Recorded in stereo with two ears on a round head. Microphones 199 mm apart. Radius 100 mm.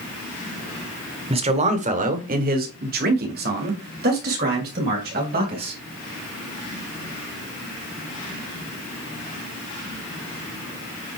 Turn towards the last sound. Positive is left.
turn(degrees=-45)  # may be behind; listen again after turning